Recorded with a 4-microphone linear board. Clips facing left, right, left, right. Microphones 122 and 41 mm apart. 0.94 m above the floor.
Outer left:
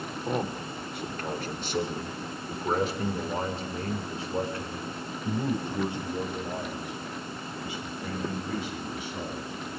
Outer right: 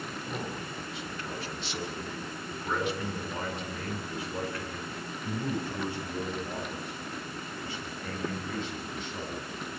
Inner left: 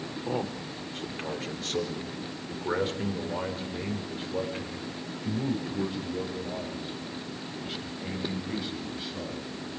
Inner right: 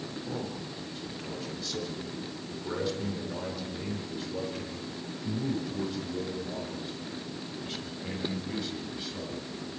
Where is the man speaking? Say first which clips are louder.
Outer left 9 dB, inner left 7 dB; 60° left (ahead or behind), 3.5 m; by 9.5 s 10° left (ahead or behind), 8 m.